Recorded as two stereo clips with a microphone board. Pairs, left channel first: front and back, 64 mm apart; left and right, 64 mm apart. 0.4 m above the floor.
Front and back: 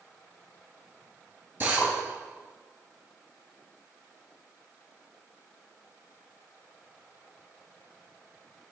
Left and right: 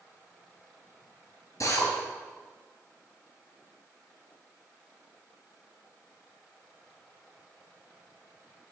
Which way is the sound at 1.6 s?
125° left.